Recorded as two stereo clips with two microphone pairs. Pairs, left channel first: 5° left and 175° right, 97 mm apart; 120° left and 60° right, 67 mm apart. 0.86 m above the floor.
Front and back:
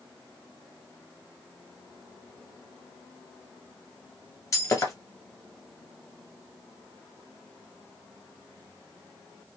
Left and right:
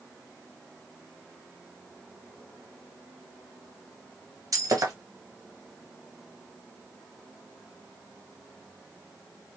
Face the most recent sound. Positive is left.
turn(degrees=-45)